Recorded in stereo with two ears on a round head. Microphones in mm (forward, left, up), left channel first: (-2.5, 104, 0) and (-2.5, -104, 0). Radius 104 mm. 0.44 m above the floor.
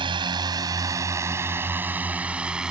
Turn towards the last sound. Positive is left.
turn(degrees=-5)  # may be behind; listen again after turning